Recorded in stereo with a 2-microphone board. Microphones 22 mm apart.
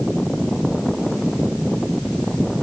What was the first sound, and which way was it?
Only background noise.